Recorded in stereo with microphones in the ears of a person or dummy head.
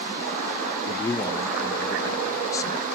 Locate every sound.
0.9 s a man speaking: 15° left (ahead or behind), 0.5 m